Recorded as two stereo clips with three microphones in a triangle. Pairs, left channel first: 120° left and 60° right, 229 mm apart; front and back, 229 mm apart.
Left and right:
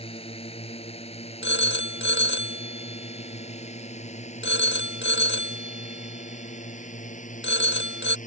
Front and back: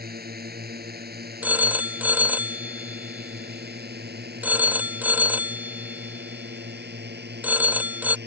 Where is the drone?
170° left; by 8.3 s 165° left.